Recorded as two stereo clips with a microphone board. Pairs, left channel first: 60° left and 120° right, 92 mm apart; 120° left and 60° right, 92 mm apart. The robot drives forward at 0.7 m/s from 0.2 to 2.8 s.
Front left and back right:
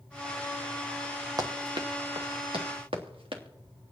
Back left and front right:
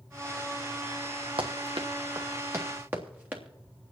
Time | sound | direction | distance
1.4 | running footsteps | 70° right | 1.7 m